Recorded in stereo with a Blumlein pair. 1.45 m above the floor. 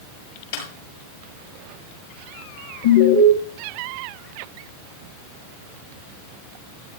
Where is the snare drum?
55° left, 9 m.